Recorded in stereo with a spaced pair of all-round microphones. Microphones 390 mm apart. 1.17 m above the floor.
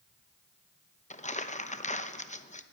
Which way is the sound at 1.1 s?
20° left (ahead or behind).